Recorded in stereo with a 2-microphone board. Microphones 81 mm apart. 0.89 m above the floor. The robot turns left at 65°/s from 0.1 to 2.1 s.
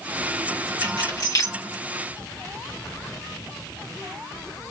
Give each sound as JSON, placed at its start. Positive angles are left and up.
{"t": 0.8, "sound": "keys jangling", "side_deg": 80, "distance_m": 1.1}